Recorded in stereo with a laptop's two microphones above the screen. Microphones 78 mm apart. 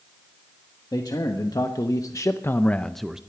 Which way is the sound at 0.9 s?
65° left (ahead or behind).